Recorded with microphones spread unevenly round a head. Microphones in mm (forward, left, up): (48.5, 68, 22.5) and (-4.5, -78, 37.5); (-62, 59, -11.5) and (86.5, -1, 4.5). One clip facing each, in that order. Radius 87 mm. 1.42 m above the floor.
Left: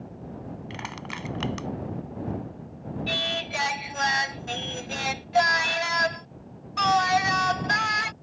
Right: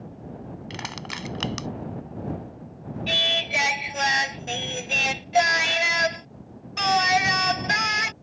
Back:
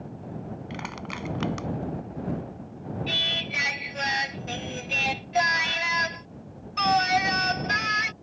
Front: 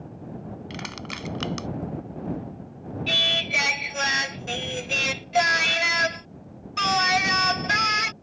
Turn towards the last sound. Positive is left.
turn(degrees=-45)